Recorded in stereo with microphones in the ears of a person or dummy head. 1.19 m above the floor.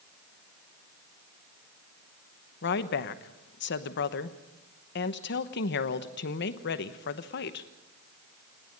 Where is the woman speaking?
55° left (ahead or behind), 1.1 m.